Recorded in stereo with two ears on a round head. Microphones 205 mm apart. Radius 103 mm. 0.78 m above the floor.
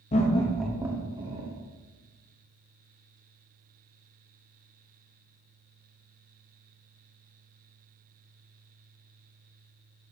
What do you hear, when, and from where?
0.1 s laughter: 35° left (ahead or behind), 0.6 m; by 1.5 s 25° right (ahead or behind), 1.4 m